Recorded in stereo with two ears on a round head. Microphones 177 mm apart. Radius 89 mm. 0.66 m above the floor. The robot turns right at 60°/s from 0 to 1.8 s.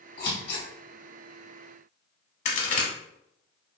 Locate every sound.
0.2 s scissors: 50° left (ahead or behind), 1.6 m; by 0.7 s 55° left (ahead or behind), 1.6 m
2.5 s a crack: 40° left (ahead or behind), 0.7 m